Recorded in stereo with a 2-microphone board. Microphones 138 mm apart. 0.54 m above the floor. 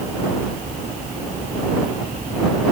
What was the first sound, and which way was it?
Only background noise.